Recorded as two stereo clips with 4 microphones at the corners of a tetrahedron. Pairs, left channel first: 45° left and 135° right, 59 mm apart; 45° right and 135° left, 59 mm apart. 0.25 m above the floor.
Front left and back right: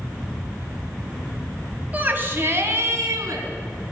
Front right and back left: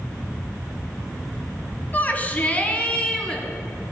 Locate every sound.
1.9 s a shout: 85° right, 1.6 m; by 3.4 s 115° right, 3 m